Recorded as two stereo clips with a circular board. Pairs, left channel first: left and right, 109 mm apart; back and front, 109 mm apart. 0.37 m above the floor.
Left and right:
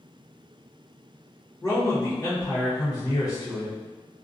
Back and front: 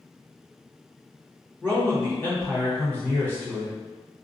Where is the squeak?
I don't hear a squeak.